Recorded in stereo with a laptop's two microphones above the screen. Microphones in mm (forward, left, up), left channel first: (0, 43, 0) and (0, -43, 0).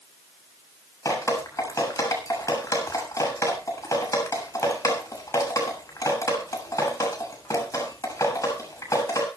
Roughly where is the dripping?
Left.